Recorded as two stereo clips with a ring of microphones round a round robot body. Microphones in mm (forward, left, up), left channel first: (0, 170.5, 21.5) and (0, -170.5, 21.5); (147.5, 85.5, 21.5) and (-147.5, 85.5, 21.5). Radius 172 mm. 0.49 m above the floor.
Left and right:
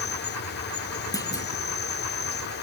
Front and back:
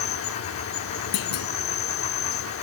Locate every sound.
0.0 s an insect: 35° left, 0.7 m
1.1 s a clunk: 10° left, 2 m